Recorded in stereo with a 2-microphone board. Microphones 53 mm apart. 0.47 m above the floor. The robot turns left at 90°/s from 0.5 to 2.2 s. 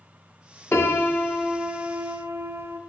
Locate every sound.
0.7 s a piano: 70° left, 0.7 m; by 2.8 s 65° right, 0.7 m